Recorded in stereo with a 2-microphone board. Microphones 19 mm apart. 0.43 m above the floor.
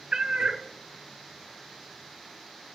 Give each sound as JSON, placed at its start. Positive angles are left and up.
{"t": 0.1, "sound": "a cat meowing", "side_deg": -45, "distance_m": 0.5}